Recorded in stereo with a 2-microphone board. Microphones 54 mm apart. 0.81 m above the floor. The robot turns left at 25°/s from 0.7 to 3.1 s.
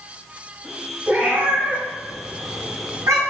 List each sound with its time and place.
1.1 s a cat meowing: 25° right (ahead or behind), 1.8 m; by 3.2 s 75° right (ahead or behind), 1.8 m